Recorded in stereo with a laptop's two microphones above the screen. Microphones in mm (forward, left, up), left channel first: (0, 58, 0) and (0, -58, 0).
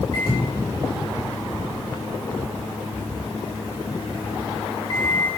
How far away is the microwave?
About 8 m.